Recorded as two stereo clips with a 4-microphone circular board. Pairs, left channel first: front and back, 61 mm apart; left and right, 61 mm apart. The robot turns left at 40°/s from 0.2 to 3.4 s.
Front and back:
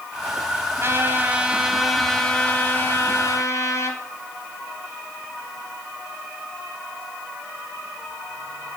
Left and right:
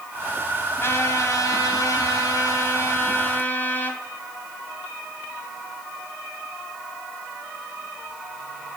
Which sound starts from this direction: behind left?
A trumpet, at 0.8 s.